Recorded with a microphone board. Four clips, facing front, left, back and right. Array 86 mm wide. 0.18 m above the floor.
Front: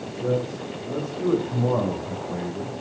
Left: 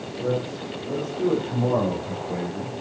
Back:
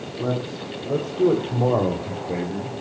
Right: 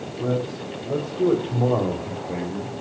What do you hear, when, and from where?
0.2 s a man speaking: 160° right, 6 m; by 2.7 s 155° right, 3.5 m